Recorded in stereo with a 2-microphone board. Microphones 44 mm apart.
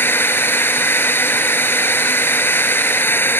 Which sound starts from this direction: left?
A drone, at 0.0 s.